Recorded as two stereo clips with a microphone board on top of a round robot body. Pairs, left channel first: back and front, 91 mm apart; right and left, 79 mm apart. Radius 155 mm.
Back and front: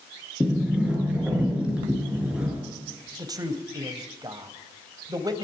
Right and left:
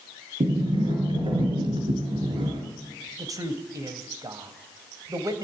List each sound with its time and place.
0.4 s a sliding door: 80° left, 7 m
3.2 s a man speaking: 45° left, 3 m